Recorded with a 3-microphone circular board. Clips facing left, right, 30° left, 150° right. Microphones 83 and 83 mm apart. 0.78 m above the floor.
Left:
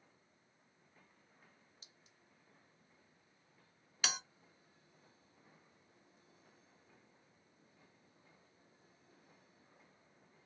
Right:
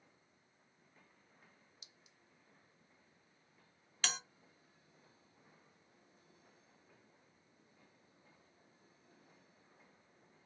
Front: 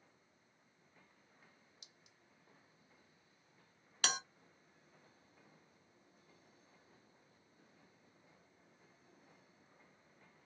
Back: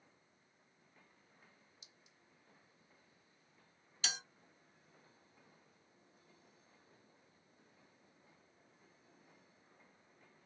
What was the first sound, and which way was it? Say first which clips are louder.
A clink: even, even; 45° left.